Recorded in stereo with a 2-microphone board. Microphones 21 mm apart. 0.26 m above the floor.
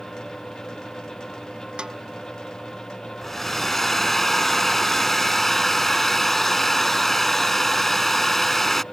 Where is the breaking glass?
I don't hear breaking glass.